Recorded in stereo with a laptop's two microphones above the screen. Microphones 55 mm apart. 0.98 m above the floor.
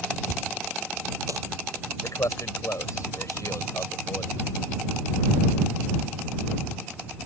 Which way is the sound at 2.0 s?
75° left (ahead or behind).